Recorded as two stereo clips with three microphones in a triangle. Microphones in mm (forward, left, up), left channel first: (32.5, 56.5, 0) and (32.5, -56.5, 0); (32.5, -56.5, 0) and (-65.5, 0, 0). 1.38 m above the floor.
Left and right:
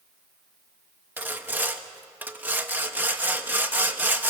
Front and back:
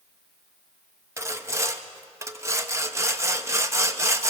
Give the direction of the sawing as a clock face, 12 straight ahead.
5 o'clock.